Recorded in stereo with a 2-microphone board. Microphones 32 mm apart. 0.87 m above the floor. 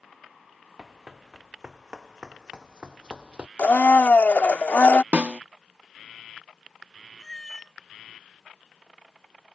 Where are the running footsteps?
15° right (ahead or behind); by 3.5 s 35° right (ahead or behind).